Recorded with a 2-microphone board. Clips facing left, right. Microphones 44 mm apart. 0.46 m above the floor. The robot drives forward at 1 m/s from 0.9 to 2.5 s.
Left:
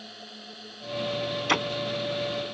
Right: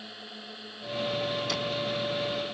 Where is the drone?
10° right (ahead or behind).